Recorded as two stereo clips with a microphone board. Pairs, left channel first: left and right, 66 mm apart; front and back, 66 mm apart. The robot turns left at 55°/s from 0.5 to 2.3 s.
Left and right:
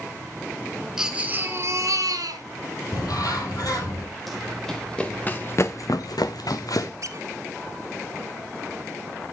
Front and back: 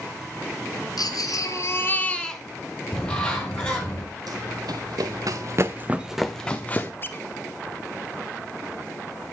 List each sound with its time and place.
1.0 s a baby crying: 10° right, 1.7 m; by 2.4 s 85° right, 1.7 m
2.9 s a bird: 75° left, 4 m
4.3 s running footsteps: straight behind, 1.9 m; by 6.9 s 60° left, 1.4 m
7.0 s a squeak: 55° right, 1.1 m